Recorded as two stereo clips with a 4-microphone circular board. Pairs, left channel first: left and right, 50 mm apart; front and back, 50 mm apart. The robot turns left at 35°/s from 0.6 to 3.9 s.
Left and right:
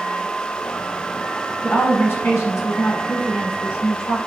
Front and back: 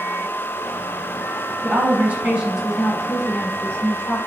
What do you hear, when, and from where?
1.6 s a woman speaking: 140° left, 5 m; by 4.2 s 60° left, 5 m